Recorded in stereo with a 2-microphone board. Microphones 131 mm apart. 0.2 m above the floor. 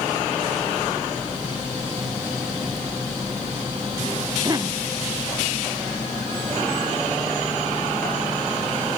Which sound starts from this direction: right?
A cough, at 4.4 s.